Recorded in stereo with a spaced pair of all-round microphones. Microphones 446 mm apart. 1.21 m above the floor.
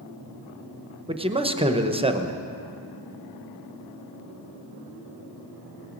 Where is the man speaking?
10° right (ahead or behind), 0.8 m.